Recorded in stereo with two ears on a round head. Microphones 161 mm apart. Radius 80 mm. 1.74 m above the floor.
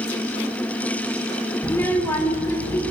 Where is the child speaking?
15° left (ahead or behind), 1.1 m.